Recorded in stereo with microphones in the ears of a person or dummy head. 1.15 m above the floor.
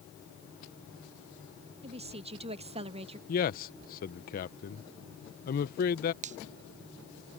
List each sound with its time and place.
1.8 s a woman speaking: 30° right (ahead or behind)
3.3 s a man speaking: 40° left (ahead or behind)
6.2 s a finger snap: 35° right (ahead or behind)